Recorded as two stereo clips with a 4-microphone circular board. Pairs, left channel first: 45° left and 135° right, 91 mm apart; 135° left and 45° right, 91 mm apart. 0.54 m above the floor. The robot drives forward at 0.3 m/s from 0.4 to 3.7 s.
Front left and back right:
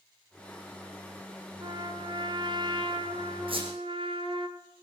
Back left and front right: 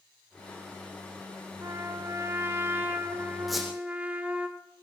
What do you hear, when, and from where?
1.6 s a trumpet: 100° right, 1.5 m; by 4.5 s 120° right, 1.7 m
3.5 s a squeak: 135° right, 4.5 m